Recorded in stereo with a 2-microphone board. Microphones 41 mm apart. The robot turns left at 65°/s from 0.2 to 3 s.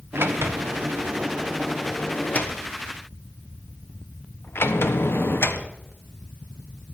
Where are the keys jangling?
I don't hear keys jangling.